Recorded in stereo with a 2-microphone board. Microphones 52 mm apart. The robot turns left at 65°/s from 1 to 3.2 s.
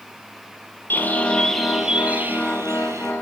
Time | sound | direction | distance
0.9 | a bird | 45° left | 4.5 m